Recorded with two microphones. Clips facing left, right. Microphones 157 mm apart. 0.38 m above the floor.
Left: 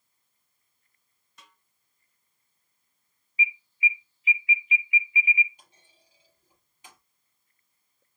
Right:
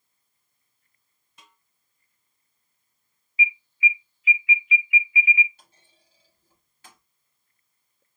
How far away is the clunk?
About 3 m.